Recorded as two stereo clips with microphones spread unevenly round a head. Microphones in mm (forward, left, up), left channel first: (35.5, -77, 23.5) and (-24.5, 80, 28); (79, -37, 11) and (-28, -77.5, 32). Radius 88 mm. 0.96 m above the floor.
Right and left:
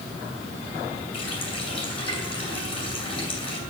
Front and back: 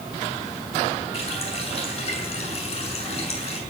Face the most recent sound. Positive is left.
turn(degrees=-10)